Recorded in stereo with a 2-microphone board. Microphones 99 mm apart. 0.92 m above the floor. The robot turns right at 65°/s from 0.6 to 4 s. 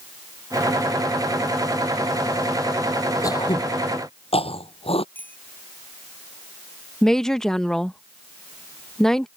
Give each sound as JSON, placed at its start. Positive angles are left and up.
{"t": 3.2, "sound": "throat clearing", "side_deg": 35}
{"t": 5.2, "sound": "a bicycle bell", "side_deg": 20}
{"t": 7.0, "sound": "a woman speaking", "side_deg": 5}